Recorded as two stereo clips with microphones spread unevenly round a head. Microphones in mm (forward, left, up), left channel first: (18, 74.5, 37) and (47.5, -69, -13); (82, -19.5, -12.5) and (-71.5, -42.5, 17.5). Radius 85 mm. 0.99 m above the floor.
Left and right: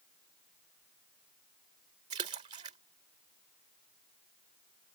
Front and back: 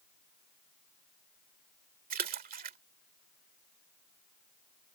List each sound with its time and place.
2.1 s a splash: 140° right